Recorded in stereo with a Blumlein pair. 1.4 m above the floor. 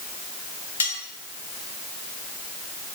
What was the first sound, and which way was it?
Cutlery clinking, 70° left.